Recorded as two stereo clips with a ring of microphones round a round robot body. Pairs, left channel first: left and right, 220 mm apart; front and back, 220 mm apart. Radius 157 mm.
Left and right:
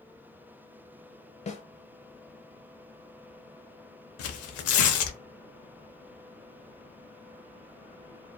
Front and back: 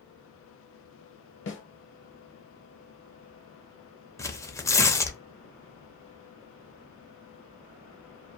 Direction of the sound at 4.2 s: 80° left.